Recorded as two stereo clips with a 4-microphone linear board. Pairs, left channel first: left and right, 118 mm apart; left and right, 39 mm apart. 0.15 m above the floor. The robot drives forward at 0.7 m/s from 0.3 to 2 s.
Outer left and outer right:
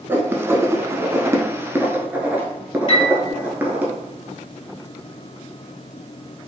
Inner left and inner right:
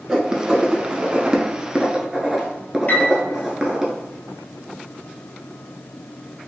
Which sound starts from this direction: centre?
Writing, at 0.1 s.